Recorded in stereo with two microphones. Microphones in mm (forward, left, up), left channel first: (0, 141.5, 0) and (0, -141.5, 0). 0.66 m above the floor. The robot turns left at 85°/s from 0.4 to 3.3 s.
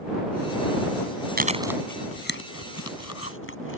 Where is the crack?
No crack in this recording.